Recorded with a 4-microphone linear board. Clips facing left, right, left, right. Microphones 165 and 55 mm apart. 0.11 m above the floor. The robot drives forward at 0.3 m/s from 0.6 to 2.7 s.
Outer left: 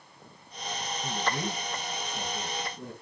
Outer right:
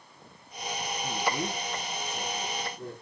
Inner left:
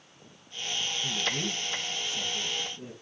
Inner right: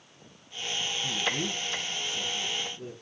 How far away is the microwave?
I don't hear a microwave.